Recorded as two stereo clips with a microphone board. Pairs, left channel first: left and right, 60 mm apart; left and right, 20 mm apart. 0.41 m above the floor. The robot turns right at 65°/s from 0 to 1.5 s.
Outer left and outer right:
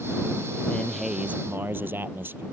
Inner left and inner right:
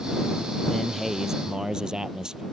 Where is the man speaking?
160° left; by 2.4 s 145° right.